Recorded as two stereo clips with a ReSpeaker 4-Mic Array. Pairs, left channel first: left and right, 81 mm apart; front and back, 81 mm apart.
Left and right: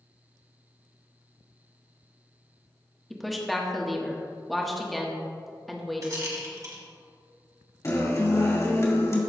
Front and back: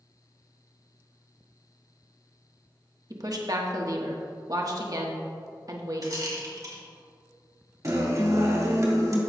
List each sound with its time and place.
3.1 s a woman speaking: straight behind, 1.2 m
6.0 s a rattle: 135° right, 2 m
7.8 s a guitar: 135° left, 2 m